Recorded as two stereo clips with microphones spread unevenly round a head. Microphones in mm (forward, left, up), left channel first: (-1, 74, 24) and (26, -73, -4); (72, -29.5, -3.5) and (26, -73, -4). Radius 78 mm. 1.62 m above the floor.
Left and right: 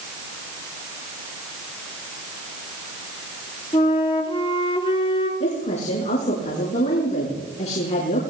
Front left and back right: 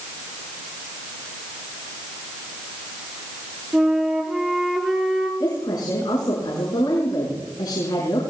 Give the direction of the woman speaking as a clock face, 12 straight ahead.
10 o'clock.